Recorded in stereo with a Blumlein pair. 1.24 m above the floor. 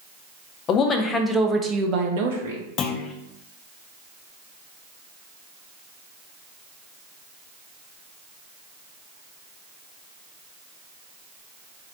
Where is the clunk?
30° left, 0.6 m.